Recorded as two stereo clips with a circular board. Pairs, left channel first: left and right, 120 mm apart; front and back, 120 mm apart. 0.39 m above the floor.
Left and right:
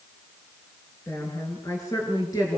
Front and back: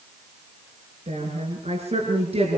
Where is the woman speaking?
155° left, 6.5 m; by 2.6 s 145° left, 6.5 m.